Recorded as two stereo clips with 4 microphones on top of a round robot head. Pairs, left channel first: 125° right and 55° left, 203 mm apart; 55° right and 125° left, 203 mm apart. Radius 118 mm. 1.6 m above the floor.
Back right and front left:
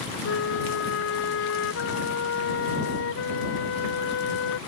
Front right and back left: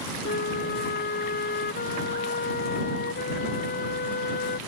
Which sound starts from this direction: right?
A flute, at 0.2 s.